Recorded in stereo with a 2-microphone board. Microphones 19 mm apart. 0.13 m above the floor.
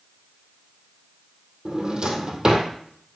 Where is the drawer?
45° right (ahead or behind), 1.6 m.